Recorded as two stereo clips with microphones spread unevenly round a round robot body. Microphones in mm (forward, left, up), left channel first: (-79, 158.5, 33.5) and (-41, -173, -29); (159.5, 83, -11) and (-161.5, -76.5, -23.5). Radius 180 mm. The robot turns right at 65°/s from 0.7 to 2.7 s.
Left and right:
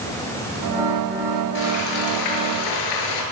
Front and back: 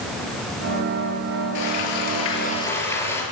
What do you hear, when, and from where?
1.6 s frying: 35° left, 8.5 m; by 3.2 s 110° left, 8.5 m